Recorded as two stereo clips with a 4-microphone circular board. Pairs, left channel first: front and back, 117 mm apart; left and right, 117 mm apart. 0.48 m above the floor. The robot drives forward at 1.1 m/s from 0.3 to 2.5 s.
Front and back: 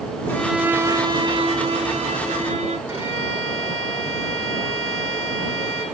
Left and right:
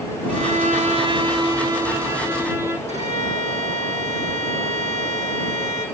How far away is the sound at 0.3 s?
About 0.8 m.